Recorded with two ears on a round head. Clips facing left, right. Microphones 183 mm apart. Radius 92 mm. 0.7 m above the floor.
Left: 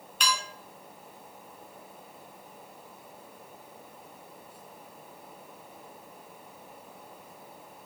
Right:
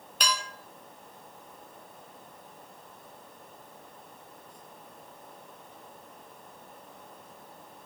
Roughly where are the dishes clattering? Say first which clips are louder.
Even; right.